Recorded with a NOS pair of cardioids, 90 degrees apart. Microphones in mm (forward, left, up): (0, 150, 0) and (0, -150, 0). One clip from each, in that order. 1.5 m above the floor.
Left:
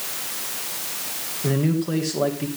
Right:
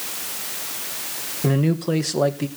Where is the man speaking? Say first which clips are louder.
Right 2 dB; 50° right, 1.9 m.